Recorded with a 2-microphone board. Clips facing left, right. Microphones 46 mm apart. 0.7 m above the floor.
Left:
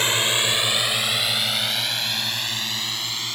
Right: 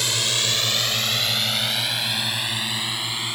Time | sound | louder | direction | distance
0.0 | a drone | left 3 dB | 30° left (ahead or behind) | ?